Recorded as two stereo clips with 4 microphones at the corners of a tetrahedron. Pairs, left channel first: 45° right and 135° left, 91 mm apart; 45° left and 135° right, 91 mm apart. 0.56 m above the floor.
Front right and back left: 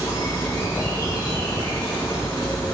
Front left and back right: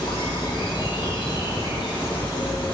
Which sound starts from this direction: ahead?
An insect, at 0.0 s.